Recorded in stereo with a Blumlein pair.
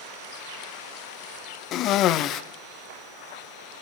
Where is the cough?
35° left, 0.6 m.